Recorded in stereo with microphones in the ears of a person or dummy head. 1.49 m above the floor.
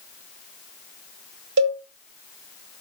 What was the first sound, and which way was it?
A cowbell, 80° right.